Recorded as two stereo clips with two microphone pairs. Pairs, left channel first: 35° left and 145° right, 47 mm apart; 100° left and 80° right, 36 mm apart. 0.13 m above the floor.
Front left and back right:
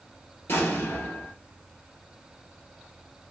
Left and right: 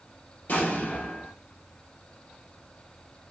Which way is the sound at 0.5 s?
65° left.